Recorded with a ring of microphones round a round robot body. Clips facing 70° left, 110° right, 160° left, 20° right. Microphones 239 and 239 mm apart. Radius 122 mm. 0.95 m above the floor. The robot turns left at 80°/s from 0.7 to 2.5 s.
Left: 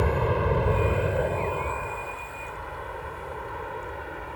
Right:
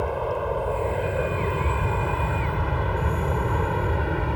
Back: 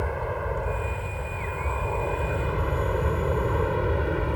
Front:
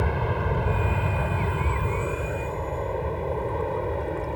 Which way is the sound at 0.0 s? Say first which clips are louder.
Left 1 dB, front 2 dB; 10° left.